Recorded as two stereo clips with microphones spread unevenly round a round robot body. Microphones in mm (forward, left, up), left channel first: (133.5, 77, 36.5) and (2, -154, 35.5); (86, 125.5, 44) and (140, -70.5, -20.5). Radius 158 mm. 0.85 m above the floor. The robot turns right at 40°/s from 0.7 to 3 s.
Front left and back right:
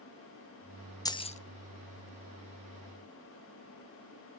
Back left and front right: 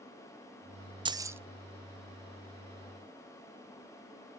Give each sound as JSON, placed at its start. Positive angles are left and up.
{"t": 1.1, "sound": "keys jangling", "azimuth_deg": -15, "distance_m": 0.5}